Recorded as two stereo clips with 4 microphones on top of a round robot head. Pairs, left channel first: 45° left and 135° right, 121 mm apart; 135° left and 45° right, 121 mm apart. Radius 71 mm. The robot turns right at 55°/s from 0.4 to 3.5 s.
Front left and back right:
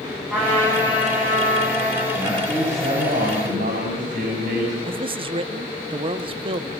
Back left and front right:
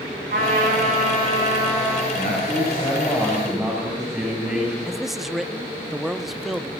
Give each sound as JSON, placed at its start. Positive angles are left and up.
{"t": 0.3, "sound": "a trumpet", "azimuth_deg": -40, "distance_m": 10.0}
{"t": 2.1, "sound": "a man speaking", "azimuth_deg": 155, "distance_m": 8.0}
{"t": 4.8, "sound": "a man speaking", "azimuth_deg": -130, "distance_m": 0.9}